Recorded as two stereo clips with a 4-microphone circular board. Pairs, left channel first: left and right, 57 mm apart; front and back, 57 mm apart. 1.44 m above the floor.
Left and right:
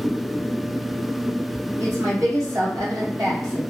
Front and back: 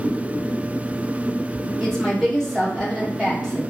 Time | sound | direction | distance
1.8 | a woman speaking | 85° right | 1.3 m